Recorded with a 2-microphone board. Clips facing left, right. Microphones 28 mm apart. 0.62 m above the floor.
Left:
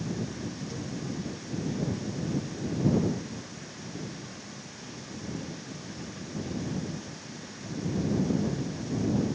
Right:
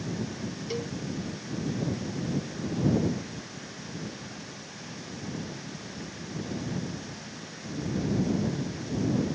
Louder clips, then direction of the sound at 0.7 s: Right 4 dB; 60° right (ahead or behind).